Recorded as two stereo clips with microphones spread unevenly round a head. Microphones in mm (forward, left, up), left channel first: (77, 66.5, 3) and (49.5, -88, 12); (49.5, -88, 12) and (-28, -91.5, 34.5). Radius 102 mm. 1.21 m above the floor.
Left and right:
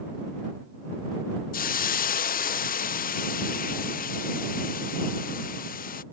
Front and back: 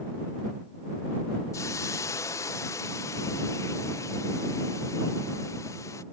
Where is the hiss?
55° left.